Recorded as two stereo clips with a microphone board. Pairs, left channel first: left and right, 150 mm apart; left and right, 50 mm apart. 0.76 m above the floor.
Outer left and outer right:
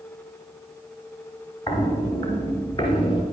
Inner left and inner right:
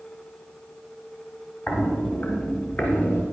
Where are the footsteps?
45° left (ahead or behind), 3 m; by 3.2 s 35° left (ahead or behind), 4 m.